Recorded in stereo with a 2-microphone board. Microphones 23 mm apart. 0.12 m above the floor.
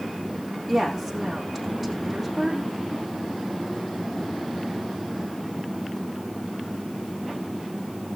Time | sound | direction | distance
0.7 | a woman speaking | centre (ahead or behind) | 5 m